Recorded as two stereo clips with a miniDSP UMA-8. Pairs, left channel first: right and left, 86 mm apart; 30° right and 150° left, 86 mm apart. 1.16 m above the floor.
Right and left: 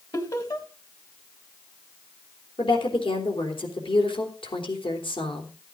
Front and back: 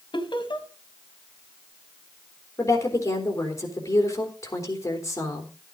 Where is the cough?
No cough in this recording.